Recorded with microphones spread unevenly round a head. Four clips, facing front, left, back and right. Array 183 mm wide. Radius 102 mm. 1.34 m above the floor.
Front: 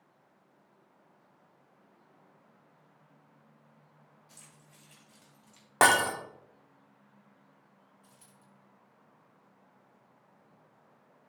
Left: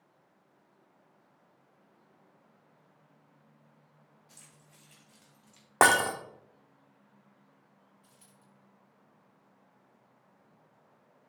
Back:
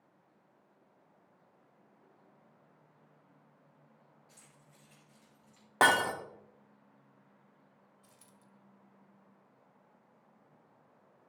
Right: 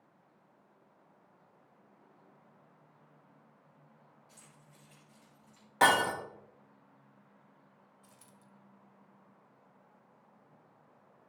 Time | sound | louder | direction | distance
4.3 | keys jangling | right 1 dB, front 3 dB | 120° left | 3 m
5.8 | breaking glass | left 3 dB, front 3 dB | 70° left | 1.1 m
8.0 | a dropped coin | right 2 dB, front 2 dB | 90° right | 1.3 m